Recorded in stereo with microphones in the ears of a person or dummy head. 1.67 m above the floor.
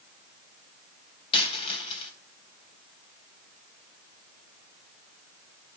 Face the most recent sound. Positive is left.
turn(degrees=25)  # may be behind; listen again after turning